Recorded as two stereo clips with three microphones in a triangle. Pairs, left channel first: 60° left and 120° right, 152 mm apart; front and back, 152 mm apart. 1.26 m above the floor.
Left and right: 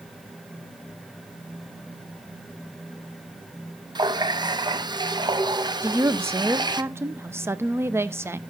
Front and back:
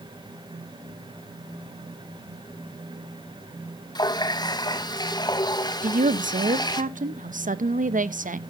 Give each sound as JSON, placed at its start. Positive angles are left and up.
{"t": 4.0, "sound": "a running tap", "azimuth_deg": -60, "distance_m": 0.7}
{"t": 5.8, "sound": "a woman speaking", "azimuth_deg": 170, "distance_m": 0.7}